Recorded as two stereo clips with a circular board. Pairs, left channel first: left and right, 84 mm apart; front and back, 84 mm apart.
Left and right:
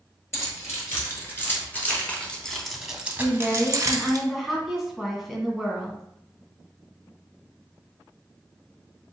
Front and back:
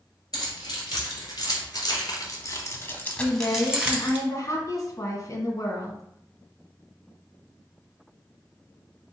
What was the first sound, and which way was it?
Keys jangling, 35° left.